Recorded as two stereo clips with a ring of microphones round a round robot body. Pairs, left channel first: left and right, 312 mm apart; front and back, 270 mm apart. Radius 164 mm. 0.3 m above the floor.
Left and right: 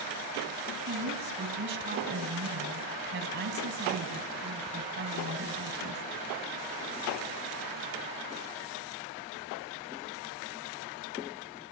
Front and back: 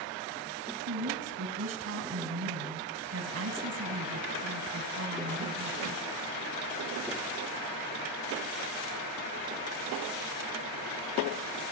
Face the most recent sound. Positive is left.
turn(degrees=-140)